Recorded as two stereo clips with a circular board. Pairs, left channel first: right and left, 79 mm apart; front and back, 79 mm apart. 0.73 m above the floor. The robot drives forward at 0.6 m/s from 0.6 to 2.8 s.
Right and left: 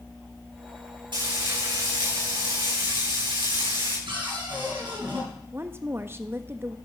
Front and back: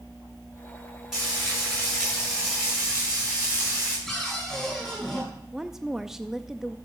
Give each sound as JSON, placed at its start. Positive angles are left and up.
{"t": 1.1, "sound": "frying", "azimuth_deg": 100, "distance_m": 9.5}
{"t": 4.1, "sound": "a cupboard door", "azimuth_deg": 90, "distance_m": 6.5}
{"t": 5.5, "sound": "a woman speaking", "azimuth_deg": 100, "distance_m": 0.6}